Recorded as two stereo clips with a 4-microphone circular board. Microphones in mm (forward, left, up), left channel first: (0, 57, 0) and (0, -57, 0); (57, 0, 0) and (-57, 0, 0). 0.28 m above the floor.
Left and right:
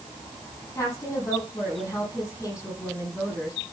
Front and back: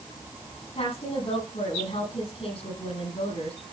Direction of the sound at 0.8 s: 25° left.